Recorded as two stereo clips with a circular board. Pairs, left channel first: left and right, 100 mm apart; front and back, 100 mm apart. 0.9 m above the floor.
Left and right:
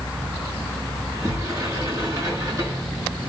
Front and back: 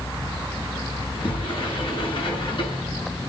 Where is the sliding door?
35° right, 8.5 m.